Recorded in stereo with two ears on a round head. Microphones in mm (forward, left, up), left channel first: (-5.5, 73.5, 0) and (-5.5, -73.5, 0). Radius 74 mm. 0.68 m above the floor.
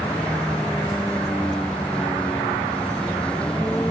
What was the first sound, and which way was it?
A vehicle, 5° left (ahead or behind).